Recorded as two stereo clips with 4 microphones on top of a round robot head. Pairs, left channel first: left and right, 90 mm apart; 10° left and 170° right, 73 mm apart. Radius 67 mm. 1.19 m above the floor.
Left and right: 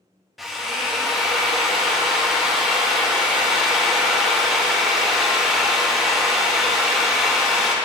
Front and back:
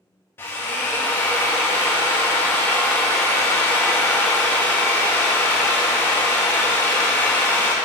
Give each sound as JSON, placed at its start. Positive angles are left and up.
{"t": 0.4, "sound": "a drill", "azimuth_deg": -5, "distance_m": 0.5}